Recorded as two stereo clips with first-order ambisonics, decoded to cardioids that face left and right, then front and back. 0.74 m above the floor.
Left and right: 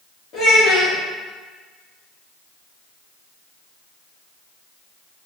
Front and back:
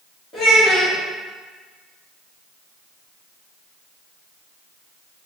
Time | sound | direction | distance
0.3 | a child speaking | 70° left | 0.7 m